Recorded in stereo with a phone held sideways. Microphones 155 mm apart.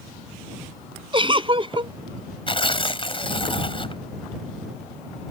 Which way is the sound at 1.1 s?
35° right (ahead or behind).